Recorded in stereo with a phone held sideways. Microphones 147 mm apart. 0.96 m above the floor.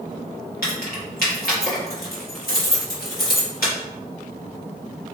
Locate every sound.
0.6 s keys jangling: 75° left (ahead or behind), 1.0 m